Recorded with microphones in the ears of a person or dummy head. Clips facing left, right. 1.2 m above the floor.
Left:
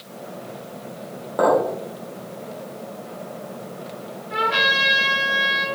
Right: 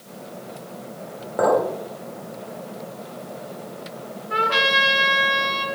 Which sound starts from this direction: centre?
A clink, at 1.4 s.